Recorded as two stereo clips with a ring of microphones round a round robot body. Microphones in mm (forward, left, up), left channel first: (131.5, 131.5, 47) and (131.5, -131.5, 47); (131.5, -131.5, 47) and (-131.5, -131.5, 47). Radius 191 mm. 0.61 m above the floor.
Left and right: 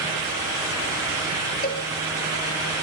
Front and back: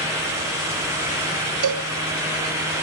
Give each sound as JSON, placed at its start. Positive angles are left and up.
{"t": 1.6, "sound": "a cowbell", "azimuth_deg": 160, "distance_m": 1.2}